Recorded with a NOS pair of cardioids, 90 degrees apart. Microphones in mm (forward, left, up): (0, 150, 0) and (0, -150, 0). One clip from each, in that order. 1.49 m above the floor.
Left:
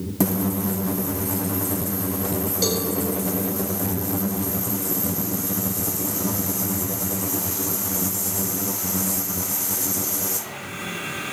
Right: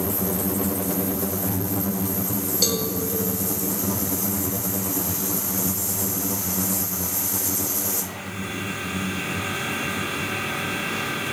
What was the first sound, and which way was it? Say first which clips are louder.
A cowbell: right 1 dB; 25° right.